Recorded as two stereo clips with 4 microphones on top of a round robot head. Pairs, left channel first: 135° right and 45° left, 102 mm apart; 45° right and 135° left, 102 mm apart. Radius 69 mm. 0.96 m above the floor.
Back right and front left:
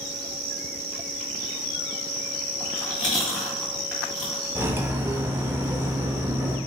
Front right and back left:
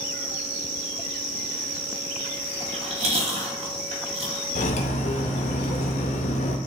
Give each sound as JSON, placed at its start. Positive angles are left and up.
{"t": 2.6, "sound": "chewing", "azimuth_deg": 140, "distance_m": 1.8}
{"t": 4.5, "sound": "cutlery clinking", "azimuth_deg": -25, "distance_m": 0.5}